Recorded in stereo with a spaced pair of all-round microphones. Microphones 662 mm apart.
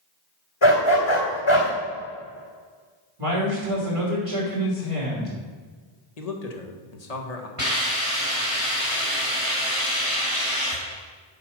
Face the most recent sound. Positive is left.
turn(degrees=-65)  # may be behind; listen again after turning